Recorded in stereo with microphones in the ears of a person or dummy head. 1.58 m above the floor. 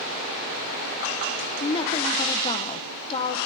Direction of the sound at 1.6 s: 30° left (ahead or behind).